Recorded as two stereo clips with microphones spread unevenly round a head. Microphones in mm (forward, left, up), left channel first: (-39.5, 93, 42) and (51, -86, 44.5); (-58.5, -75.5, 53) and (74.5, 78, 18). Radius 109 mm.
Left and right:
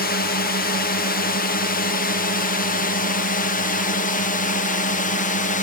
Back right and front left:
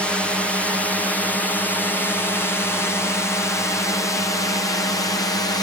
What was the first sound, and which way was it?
A drone, 135° left.